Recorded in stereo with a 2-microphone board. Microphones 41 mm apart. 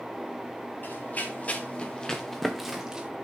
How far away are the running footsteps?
About 2.5 m.